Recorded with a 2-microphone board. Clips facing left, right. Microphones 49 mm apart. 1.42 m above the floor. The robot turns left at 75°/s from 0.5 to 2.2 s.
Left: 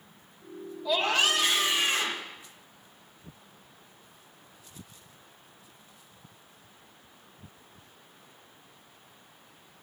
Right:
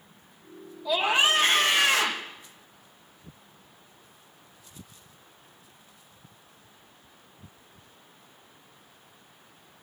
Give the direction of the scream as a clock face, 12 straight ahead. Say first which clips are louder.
Right 2 dB; 12 o'clock.